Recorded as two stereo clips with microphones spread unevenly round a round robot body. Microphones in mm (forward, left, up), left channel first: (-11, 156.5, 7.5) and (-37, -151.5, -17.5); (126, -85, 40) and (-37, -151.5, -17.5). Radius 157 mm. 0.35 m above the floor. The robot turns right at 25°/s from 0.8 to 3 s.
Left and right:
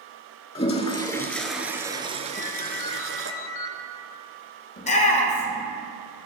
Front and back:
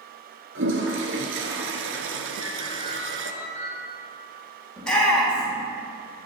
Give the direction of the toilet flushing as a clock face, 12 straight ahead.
7 o'clock.